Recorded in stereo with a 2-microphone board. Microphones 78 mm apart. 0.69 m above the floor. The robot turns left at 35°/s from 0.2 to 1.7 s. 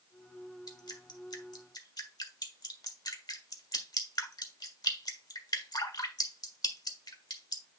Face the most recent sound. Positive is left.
turn(degrees=70)  # may be behind; listen again after turning